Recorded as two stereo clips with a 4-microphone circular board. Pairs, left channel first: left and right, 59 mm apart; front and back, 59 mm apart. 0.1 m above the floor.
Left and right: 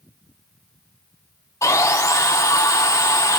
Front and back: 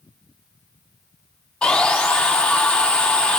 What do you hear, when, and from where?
1.6 s sawing: 75° left, 0.6 m